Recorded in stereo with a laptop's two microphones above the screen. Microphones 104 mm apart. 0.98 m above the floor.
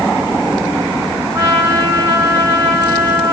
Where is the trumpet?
30° right (ahead or behind), 3 m.